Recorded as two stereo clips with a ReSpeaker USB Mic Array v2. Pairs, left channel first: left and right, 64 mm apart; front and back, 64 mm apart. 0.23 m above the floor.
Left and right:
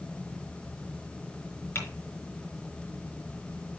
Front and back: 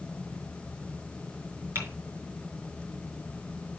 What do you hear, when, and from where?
1.8 s typing on a keyboard: 135° left, 4 m